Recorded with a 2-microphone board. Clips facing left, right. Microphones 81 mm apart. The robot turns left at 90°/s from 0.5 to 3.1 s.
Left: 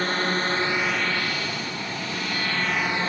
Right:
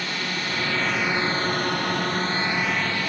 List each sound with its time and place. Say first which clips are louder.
0.0 s a drone: left 5 dB; 40° left (ahead or behind); by 3.1 s 35° left (ahead or behind)